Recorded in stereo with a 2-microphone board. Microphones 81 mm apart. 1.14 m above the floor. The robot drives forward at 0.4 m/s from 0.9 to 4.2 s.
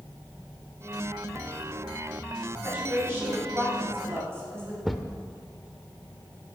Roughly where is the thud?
Centre.